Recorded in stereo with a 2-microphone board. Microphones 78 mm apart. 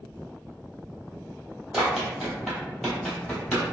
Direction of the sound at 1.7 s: 10° right (ahead or behind).